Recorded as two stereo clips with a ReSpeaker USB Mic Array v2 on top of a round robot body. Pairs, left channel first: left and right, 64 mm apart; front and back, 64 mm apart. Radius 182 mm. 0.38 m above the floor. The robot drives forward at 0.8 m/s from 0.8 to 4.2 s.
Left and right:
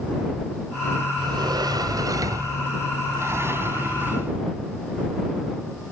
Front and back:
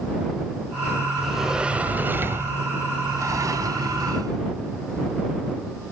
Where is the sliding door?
90° right; by 4.4 s 150° right.